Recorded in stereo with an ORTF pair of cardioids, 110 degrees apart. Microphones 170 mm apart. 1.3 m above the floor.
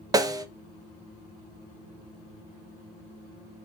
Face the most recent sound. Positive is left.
turn(degrees=-20)